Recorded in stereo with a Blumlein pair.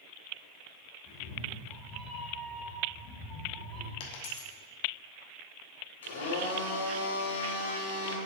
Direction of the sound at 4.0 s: 50° left.